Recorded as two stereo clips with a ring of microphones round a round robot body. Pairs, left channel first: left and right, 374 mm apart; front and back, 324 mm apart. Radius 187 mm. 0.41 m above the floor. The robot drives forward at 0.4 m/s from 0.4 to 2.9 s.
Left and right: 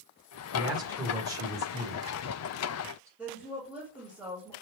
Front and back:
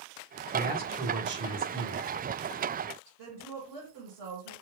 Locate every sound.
0.5 s a man speaking: 155° right, 1.5 m; by 3.1 s 170° right, 2 m
3.2 s a woman speaking: 175° right, 1.8 m